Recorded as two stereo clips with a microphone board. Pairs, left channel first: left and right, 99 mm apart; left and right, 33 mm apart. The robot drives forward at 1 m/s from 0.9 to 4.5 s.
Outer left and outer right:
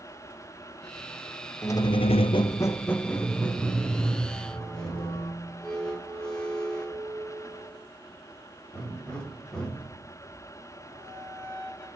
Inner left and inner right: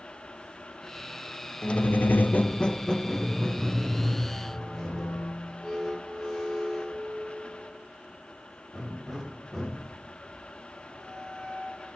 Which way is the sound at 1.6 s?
30° left (ahead or behind).